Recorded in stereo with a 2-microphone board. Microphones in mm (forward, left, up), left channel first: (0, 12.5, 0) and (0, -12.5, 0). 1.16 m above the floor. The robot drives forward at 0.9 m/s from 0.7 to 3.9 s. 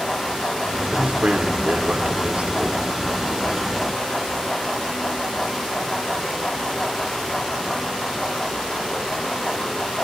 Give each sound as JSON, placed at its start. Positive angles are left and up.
{"t": 0.9, "sound": "a man speaking", "side_deg": -70, "distance_m": 3.0}